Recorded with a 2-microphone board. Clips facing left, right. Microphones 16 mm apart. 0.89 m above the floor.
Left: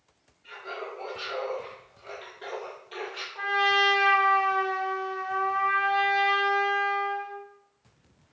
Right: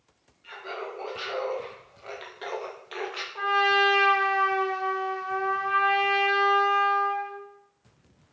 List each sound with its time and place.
0.4 s laughter: 55° right (ahead or behind), 1.8 m; by 3.2 s 35° right (ahead or behind), 0.7 m
3.4 s a trumpet: 45° right (ahead or behind), 1.2 m